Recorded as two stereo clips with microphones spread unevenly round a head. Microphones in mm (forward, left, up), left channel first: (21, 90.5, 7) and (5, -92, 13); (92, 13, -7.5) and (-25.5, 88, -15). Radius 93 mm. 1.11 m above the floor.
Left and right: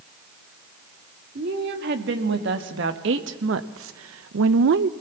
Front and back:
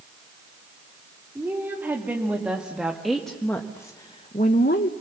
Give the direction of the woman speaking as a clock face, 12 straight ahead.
4 o'clock.